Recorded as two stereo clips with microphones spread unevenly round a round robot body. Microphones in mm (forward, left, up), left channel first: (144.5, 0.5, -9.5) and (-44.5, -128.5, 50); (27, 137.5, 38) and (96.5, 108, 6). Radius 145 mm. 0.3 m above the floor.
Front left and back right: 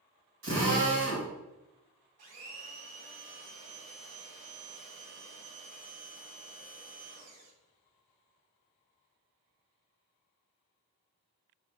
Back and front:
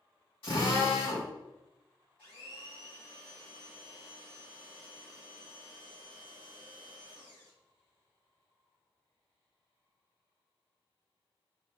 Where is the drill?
Straight behind, 2 m.